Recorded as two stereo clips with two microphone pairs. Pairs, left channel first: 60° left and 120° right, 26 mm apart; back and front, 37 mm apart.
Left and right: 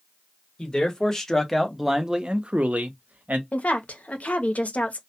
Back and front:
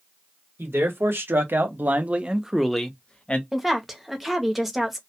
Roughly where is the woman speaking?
Left.